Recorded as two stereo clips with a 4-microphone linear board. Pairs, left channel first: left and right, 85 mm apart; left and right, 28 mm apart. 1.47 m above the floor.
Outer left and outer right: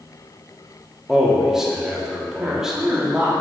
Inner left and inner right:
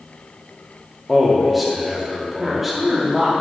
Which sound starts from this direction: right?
A woman speaking, at 2.4 s.